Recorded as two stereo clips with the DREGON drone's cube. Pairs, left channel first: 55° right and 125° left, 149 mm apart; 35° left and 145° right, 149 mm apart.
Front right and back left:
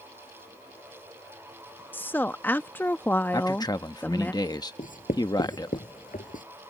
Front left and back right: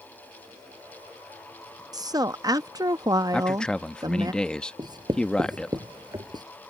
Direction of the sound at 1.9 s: 120° right.